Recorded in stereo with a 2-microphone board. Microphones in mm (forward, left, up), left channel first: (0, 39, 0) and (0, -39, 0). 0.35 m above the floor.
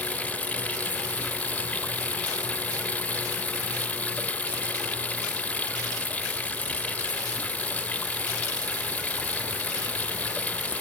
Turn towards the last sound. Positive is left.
turn(degrees=20)  # may be behind; listen again after turning